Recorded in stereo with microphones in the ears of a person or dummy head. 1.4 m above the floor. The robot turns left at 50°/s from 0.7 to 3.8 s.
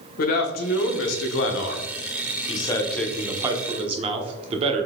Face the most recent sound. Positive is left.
turn(degrees=-35)